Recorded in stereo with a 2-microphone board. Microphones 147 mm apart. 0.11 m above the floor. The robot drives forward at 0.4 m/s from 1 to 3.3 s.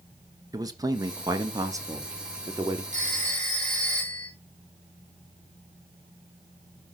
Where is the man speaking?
25° right (ahead or behind), 1.2 m; by 2.8 s 20° right (ahead or behind), 1.5 m.